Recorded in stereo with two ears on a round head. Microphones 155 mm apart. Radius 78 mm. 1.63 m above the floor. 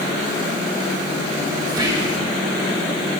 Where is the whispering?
25° right (ahead or behind), 2 m.